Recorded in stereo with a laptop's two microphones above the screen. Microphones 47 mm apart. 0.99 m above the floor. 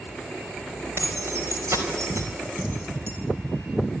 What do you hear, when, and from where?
1.0 s keys jangling: 60° right (ahead or behind), 4 m; by 3.1 s 80° right, 4.5 m